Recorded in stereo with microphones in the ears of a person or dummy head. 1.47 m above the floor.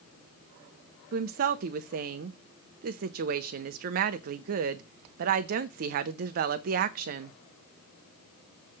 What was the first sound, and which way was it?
A woman speaking, 55° right (ahead or behind).